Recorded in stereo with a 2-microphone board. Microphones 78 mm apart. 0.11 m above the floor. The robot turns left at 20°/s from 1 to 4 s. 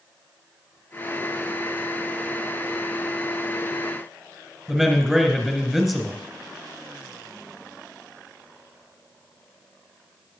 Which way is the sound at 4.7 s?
5° right (ahead or behind).